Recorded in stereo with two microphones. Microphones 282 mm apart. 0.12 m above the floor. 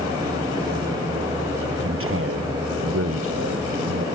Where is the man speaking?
50° right (ahead or behind); by 4.0 s 55° right (ahead or behind).